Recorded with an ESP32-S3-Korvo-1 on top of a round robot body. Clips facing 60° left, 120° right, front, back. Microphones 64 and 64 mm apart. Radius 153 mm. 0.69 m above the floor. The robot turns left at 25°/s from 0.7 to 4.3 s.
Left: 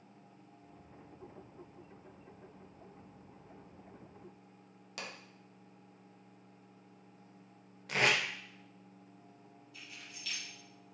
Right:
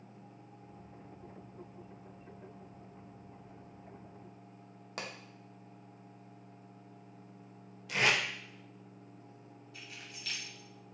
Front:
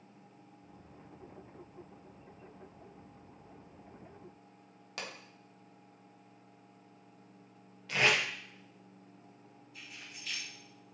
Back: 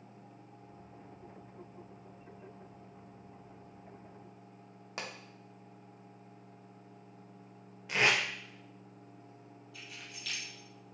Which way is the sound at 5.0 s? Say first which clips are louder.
Right 3 dB, back 1 dB; 130° right.